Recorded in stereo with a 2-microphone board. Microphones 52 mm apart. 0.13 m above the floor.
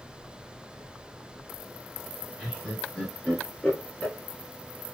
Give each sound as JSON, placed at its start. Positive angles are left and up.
{"t": 2.4, "sound": "laughter", "side_deg": 5, "distance_m": 1.7}